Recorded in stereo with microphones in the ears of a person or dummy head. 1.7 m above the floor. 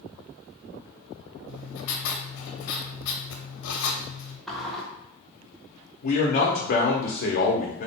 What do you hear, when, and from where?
1.5 s writing: 70° left (ahead or behind), 0.6 m
4.5 s a sliding door: 5° right (ahead or behind), 0.6 m
6.0 s a man speaking: 35° left (ahead or behind), 0.5 m